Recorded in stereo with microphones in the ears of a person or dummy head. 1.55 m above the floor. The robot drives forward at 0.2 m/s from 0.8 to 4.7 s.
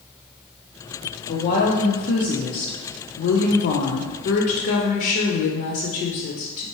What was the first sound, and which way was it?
A woman speaking, 35° left (ahead or behind).